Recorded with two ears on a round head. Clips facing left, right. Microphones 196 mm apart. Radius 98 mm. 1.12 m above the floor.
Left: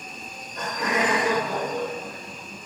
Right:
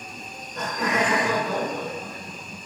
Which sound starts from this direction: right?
Laughter, at 0.1 s.